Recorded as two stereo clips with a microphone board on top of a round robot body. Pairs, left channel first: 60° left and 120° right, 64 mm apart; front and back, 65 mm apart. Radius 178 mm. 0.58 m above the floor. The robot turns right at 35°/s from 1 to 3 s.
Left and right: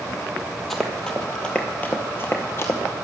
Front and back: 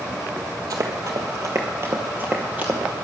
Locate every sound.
0.7 s running footsteps: 145° left, 1.3 m; by 2.8 s 110° left, 1.2 m